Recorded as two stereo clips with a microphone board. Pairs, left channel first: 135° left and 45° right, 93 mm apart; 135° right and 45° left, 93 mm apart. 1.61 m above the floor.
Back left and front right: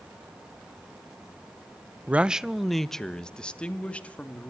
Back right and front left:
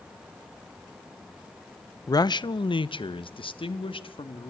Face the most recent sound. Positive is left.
turn(degrees=-150)